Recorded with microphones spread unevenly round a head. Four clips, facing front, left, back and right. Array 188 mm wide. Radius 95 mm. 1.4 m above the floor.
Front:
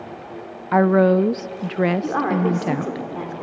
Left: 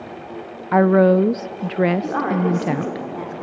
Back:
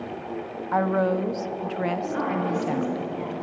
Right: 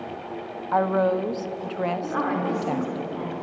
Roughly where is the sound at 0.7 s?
Ahead left.